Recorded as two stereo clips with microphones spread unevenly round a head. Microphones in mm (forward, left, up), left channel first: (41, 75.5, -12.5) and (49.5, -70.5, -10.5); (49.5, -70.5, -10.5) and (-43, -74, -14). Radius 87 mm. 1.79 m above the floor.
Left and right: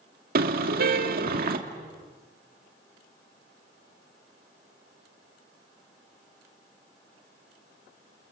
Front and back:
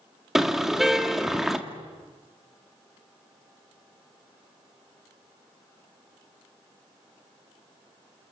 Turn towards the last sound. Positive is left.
turn(degrees=-90)